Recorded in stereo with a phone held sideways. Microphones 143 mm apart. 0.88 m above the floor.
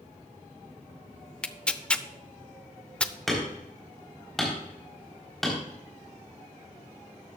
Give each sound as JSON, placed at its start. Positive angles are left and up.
{"t": 1.4, "sound": "tearing paper", "side_deg": 5, "distance_m": 0.6}
{"t": 3.3, "sound": "hammering", "side_deg": 0, "distance_m": 4.0}